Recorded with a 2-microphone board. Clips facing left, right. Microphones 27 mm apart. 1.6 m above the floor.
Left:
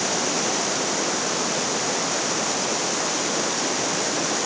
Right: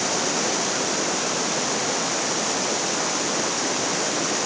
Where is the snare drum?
I don't hear a snare drum.